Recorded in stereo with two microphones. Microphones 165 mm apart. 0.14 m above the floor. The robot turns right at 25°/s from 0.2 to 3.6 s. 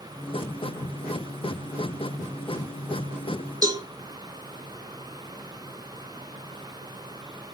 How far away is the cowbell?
About 0.7 m.